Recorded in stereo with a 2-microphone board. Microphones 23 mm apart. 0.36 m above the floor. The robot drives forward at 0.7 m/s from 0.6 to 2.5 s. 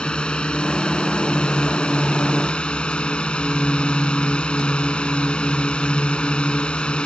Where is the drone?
50° left (ahead or behind).